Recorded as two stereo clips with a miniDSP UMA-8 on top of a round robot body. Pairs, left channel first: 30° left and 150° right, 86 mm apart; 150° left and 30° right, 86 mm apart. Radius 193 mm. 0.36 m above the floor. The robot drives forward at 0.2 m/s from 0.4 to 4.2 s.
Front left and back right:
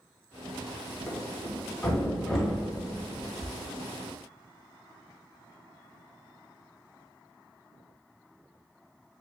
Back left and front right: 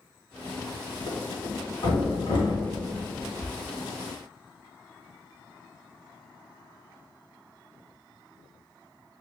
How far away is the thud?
About 1.9 m.